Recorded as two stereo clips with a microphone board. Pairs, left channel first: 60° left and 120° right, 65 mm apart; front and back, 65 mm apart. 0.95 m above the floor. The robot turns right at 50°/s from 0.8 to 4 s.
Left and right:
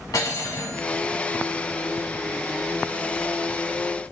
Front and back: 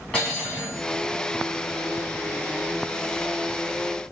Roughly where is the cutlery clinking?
Left.